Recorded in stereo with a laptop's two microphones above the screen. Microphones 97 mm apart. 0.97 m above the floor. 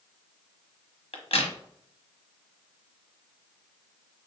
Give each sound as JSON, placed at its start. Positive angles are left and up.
{"t": 1.1, "sound": "a crack", "side_deg": 85, "distance_m": 1.0}